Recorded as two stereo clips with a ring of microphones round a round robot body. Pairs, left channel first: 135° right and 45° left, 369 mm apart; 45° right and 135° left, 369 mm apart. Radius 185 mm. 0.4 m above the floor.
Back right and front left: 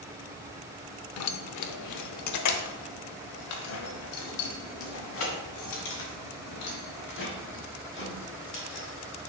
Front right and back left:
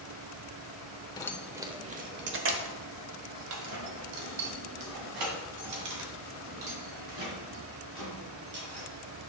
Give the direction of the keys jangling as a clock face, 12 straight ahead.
4 o'clock.